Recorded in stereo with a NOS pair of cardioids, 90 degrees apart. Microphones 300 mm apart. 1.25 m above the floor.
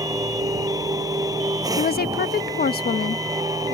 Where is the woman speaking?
35° left.